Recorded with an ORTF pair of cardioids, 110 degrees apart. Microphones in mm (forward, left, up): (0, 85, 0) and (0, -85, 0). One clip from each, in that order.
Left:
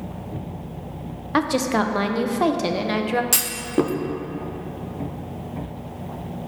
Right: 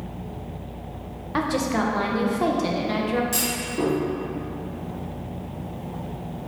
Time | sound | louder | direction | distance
1.3 | a woman speaking | left 3 dB | 30° left | 0.6 m
3.3 | a clunk | left 3 dB | 60° left | 0.6 m